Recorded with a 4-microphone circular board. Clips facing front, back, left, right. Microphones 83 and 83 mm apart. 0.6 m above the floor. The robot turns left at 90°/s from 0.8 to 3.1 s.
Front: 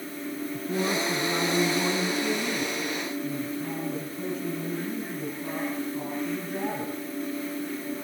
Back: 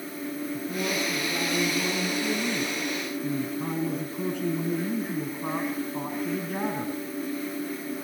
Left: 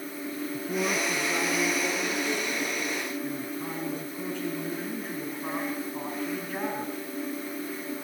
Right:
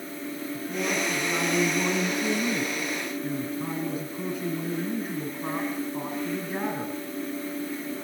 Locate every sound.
0.5 s a man speaking: 35° left, 4 m; by 7.0 s 175° right, 4 m